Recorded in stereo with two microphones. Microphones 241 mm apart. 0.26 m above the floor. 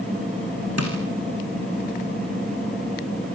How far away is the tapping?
About 5.5 m.